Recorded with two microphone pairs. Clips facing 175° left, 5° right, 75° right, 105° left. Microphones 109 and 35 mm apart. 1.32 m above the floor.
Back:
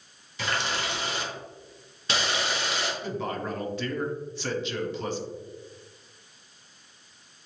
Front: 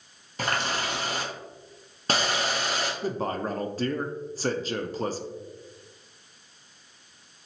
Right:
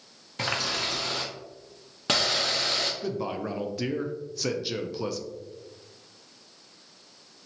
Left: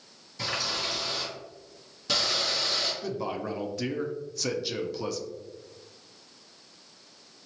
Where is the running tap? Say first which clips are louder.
Front 2 dB, right 2 dB; 45° right, 0.8 m.